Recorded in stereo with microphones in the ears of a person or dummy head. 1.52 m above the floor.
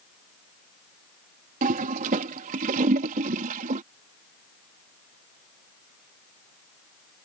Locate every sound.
1.6 s a toilet flushing: 40° right (ahead or behind)